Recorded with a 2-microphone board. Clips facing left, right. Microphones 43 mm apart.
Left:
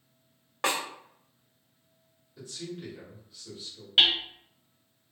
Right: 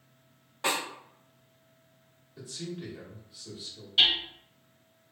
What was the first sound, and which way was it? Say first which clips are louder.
A snare drum: left 1 dB; 75° left (ahead or behind).